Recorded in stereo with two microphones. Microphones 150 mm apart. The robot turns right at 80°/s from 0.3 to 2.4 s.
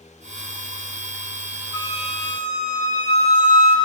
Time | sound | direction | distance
1.7 | a flute | 70° left | 7.5 m